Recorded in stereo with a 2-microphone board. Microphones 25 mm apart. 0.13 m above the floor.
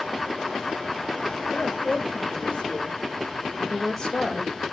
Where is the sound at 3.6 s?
20° left (ahead or behind), 3 m.